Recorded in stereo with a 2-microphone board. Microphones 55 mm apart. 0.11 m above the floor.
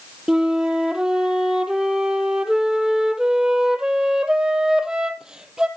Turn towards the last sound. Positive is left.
turn(degrees=-10)  # may be behind; listen again after turning